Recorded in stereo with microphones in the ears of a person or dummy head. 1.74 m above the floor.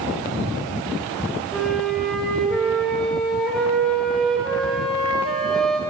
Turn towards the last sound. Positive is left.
turn(degrees=0)  # may be behind; listen again after turning